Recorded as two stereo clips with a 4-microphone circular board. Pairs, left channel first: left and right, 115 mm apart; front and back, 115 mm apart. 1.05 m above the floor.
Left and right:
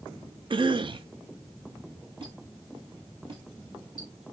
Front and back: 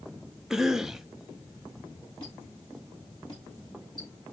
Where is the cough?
95° right, 0.6 m.